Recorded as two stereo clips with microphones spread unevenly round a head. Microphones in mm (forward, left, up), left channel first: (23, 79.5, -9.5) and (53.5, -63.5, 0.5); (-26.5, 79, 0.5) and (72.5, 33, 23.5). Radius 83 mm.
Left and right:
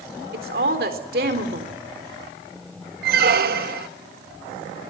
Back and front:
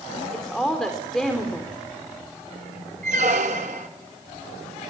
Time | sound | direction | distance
0.3 | a woman speaking | 115° right | 3.5 m
3.0 | a squeak | 65° right | 1.5 m